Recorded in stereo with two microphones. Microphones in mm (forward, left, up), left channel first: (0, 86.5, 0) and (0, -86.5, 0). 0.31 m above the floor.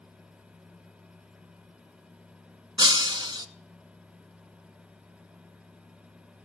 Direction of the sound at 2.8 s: 25° right (ahead or behind).